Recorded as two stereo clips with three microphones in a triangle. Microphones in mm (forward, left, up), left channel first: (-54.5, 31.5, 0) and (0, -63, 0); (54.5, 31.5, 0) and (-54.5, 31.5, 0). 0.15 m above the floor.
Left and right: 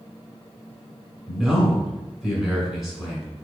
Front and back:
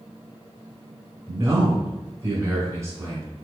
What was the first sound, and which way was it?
A man speaking, 145° right.